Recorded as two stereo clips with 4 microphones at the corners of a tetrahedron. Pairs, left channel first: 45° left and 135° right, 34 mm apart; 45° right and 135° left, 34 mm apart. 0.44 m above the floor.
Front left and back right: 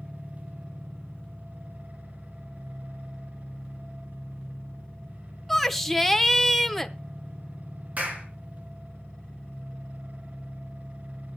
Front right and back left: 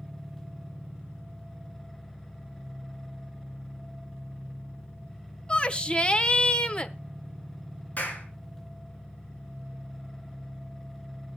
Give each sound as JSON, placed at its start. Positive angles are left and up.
{"t": 0.0, "sound": "an engine running", "azimuth_deg": -140, "distance_m": 6.0}
{"t": 5.5, "sound": "a shout", "azimuth_deg": -35, "distance_m": 0.9}
{"t": 8.0, "sound": "a clap", "azimuth_deg": -90, "distance_m": 4.0}